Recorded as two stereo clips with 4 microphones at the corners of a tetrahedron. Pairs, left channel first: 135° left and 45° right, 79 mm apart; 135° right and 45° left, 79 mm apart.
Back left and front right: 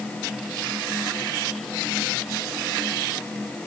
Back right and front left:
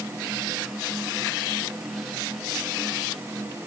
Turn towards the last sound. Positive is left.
No sound to turn to.